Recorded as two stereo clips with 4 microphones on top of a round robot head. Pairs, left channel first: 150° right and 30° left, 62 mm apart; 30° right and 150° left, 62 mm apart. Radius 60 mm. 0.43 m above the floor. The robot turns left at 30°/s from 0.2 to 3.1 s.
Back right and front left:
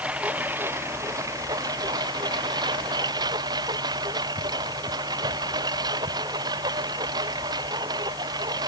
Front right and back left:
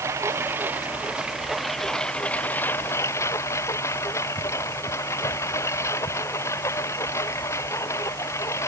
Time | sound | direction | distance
0.0 | a lawn mower | 100° left | ?